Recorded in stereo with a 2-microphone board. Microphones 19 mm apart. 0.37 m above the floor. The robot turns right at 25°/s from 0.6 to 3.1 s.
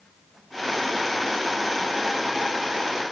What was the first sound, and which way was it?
Only background noise.